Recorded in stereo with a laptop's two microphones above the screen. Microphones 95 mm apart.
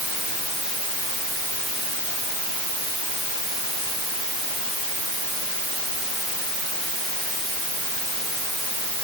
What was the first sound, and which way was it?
Only background noise.